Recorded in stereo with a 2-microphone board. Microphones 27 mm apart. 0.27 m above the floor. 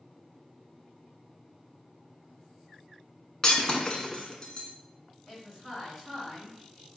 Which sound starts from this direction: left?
Breaking glass, at 3.4 s.